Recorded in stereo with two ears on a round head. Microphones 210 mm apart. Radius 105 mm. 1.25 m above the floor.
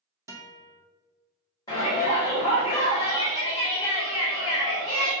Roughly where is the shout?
Centre.